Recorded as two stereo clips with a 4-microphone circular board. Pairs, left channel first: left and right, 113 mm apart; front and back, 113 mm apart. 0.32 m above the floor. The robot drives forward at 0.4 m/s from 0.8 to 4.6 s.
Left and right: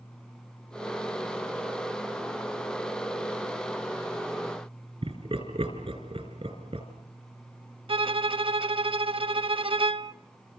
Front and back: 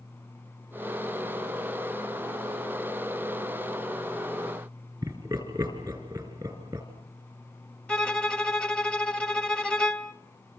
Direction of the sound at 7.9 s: 80° right.